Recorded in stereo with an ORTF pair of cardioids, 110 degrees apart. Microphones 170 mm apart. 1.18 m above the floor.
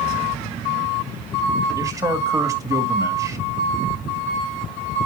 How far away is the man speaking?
About 2.5 m.